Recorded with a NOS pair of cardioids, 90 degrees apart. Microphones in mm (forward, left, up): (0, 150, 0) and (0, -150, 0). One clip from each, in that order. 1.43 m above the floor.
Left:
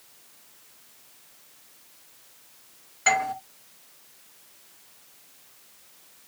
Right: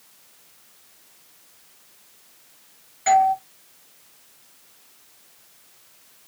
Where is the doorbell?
35° left, 2 m.